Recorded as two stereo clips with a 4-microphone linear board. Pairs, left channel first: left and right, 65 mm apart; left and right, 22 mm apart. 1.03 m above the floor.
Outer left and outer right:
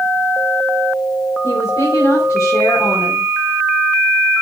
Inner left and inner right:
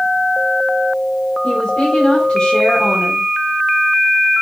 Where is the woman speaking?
70° left (ahead or behind), 3.5 m.